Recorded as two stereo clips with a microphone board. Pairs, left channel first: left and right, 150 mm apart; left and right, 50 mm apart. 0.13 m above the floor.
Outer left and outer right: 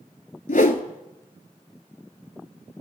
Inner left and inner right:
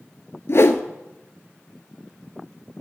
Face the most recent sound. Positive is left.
turn(degrees=60)  # may be behind; listen again after turning